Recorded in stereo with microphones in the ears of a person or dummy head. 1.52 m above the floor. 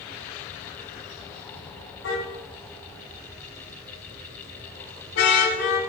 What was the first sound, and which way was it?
A car horn, 85° left.